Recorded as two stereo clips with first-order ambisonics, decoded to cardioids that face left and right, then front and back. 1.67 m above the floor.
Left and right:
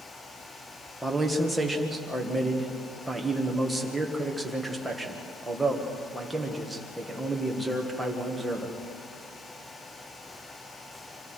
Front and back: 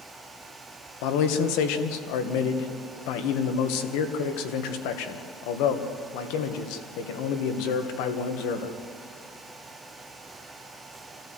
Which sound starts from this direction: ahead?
A man speaking, at 1.0 s.